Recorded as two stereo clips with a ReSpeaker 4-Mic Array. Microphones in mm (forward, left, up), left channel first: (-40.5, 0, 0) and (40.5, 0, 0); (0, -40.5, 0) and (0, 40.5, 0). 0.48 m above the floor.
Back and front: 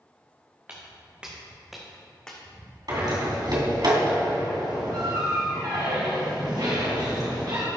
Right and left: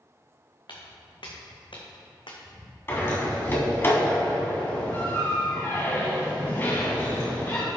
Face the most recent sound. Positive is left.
turn(degrees=-30)